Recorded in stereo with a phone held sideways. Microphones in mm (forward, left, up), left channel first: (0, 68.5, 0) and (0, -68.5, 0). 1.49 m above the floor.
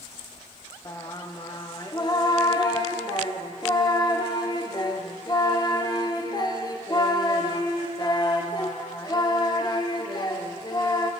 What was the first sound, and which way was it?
Singing, 30° left (ahead or behind).